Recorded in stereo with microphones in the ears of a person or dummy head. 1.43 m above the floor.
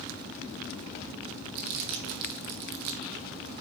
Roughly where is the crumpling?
Right.